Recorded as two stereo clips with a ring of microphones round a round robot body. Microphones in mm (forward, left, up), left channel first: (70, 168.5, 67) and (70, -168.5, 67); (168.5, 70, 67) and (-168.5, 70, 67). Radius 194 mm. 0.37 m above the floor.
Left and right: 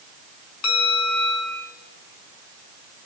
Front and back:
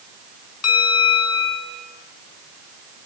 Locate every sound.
0.6 s a bell: 45° left, 4 m